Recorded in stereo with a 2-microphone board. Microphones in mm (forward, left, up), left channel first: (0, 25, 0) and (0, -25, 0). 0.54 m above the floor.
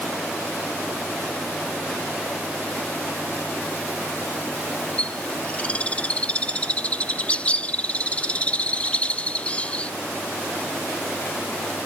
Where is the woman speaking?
I don't hear a woman speaking.